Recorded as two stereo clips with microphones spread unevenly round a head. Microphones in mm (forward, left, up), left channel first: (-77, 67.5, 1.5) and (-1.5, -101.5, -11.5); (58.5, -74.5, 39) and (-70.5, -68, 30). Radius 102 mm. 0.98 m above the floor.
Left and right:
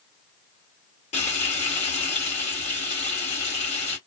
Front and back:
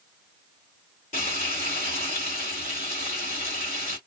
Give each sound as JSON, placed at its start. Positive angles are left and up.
{"t": 1.1, "sound": "frying", "azimuth_deg": 55, "distance_m": 1.3}